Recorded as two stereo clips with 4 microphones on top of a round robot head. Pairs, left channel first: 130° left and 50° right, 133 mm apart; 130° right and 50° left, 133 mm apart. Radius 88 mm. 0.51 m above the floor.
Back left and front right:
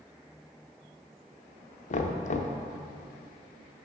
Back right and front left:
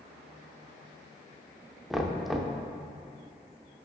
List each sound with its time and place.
1.9 s knocking: 140° left, 0.8 m